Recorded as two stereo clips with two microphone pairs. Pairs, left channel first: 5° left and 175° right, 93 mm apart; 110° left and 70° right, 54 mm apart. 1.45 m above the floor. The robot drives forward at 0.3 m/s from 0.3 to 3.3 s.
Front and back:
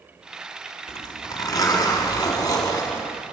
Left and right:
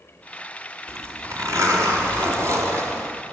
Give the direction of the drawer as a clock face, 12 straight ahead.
I don't hear a drawer.